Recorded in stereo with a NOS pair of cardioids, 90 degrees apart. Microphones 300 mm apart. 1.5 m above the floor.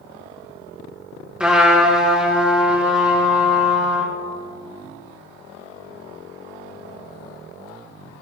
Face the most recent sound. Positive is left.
turn(degrees=-5)